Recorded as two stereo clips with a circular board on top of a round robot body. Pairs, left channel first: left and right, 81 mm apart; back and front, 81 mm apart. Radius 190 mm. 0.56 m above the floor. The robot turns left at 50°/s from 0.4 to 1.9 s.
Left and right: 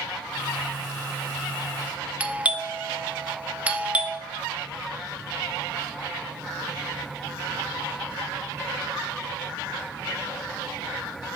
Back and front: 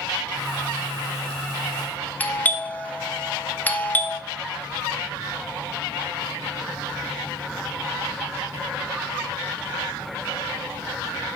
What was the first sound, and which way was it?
A doorbell, 140° right.